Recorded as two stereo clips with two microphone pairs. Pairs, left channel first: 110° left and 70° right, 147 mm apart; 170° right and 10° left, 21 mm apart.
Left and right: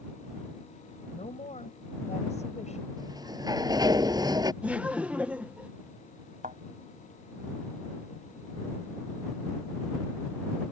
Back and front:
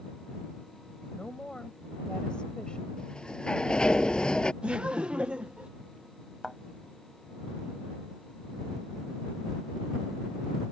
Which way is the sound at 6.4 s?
60° right.